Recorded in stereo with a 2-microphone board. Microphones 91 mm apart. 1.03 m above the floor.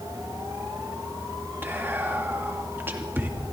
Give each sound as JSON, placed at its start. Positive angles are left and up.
{"t": 1.6, "sound": "whispering", "side_deg": -20, "distance_m": 2.0}